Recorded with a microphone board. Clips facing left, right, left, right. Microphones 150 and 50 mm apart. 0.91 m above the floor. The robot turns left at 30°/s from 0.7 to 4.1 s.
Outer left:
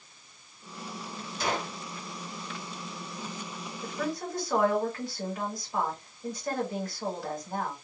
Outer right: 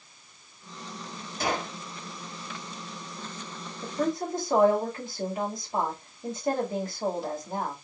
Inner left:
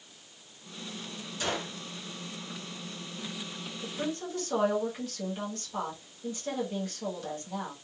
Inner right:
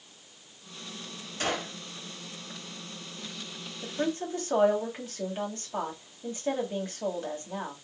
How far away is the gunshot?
About 2 m.